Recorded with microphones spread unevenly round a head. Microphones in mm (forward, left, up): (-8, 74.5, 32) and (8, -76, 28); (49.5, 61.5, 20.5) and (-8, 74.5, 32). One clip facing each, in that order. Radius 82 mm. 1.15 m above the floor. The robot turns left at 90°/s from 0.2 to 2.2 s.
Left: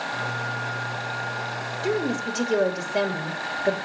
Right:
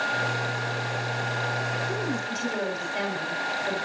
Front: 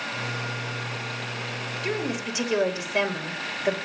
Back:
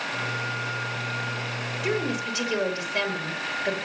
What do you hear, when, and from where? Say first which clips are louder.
1.8 s a woman speaking: left 5 dB, back 2 dB; 95° left, 5 m; by 3.8 s 60° left, 5 m